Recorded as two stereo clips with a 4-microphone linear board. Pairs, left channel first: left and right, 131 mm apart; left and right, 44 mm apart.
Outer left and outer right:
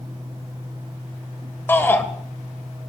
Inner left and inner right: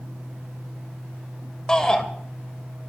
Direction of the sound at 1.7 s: 15° left (ahead or behind).